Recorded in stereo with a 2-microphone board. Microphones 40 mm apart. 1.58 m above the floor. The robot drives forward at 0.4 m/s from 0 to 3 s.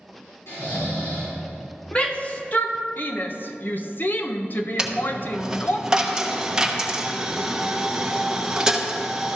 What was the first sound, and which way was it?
Snoring, 75° left (ahead or behind).